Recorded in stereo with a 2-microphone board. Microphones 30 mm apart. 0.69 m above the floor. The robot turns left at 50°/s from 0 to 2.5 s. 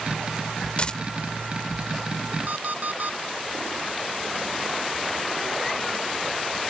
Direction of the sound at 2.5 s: 60° right (ahead or behind).